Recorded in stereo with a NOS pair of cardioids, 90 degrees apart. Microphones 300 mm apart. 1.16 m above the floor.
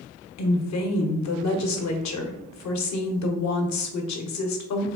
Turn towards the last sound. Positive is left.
turn(degrees=65)